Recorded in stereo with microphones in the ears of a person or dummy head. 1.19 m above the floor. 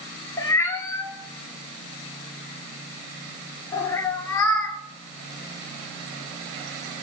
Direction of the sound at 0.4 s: 15° left (ahead or behind).